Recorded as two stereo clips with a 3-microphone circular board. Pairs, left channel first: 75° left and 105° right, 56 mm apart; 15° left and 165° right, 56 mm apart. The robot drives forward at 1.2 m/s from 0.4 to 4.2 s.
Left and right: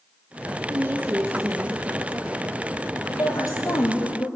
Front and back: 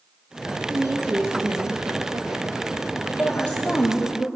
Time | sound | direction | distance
0.7 | a woman speaking | 140° right | 1.9 m
3.1 | a woman speaking | 85° left | 6.5 m